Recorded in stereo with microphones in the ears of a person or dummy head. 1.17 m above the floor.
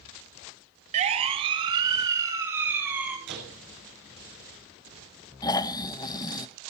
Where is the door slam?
65° right (ahead or behind), 6 m.